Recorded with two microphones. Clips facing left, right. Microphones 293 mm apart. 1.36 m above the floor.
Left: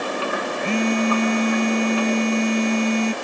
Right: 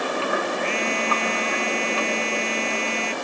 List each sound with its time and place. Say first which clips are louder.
0.6 s a phone buzzing: left 7 dB; 50° left (ahead or behind)